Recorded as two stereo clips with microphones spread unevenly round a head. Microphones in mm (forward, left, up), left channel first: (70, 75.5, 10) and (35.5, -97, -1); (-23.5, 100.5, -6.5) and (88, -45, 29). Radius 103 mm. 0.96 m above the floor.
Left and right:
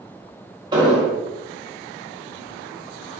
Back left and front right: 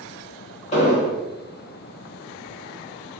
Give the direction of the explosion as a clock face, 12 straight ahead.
6 o'clock.